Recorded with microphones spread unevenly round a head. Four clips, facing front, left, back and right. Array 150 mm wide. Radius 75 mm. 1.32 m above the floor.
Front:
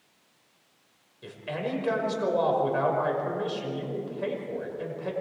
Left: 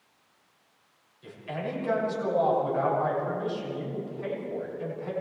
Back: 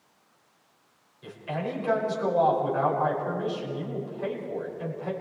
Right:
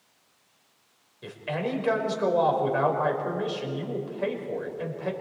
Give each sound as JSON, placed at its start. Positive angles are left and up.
{"t": 1.2, "sound": "a man speaking", "azimuth_deg": -65, "distance_m": 5.5}